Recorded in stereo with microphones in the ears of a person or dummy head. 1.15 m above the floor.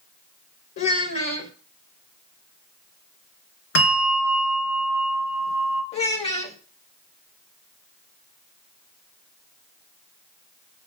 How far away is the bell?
About 3 m.